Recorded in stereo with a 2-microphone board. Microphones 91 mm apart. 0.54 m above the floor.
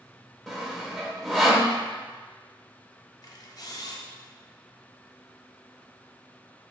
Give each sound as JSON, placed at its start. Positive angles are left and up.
{"t": 0.5, "sound": "sawing", "side_deg": 0, "distance_m": 0.6}
{"t": 3.2, "sound": "a camera shutter", "side_deg": 45, "distance_m": 0.5}